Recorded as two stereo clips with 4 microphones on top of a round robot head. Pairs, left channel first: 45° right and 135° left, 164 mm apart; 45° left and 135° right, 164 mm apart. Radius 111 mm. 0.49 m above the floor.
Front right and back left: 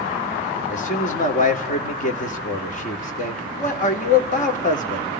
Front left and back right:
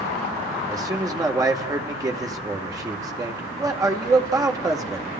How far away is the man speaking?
About 2 m.